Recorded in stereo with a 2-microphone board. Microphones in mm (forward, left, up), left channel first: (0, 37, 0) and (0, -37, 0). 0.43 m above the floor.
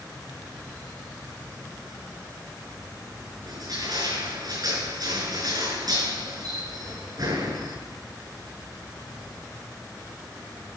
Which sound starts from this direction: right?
Crushing, at 3.5 s.